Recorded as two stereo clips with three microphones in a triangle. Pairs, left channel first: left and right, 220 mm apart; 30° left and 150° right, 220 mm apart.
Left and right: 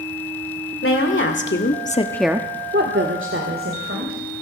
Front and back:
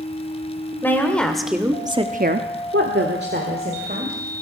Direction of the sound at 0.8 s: 110° left.